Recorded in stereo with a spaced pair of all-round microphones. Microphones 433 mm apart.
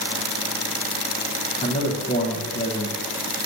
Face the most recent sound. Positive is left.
turn(degrees=20)  # may be behind; listen again after turning